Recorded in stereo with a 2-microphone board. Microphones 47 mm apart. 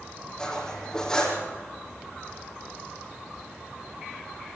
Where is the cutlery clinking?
15° left (ahead or behind), 3.5 m.